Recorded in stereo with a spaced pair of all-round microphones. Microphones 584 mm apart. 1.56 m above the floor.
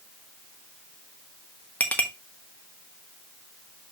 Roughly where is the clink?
Centre.